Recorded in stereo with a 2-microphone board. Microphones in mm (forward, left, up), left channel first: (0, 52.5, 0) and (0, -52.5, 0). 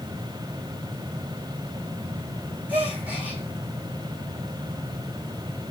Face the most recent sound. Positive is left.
turn(degrees=-15)  # may be behind; listen again after turning